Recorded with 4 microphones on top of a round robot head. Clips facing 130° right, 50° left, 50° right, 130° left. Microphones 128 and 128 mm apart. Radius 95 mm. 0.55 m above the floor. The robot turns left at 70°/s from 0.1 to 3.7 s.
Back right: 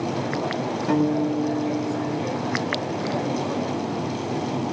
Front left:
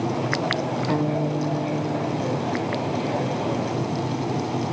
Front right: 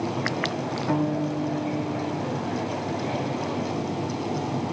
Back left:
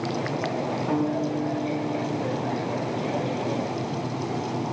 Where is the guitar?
145° right, 4 m; by 2.5 s 105° left, 4 m.